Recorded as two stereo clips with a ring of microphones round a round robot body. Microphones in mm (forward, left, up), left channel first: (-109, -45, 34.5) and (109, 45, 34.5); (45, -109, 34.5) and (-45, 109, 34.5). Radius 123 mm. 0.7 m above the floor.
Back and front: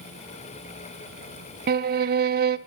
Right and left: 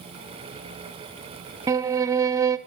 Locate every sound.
1.7 s a violin: 40° left, 0.6 m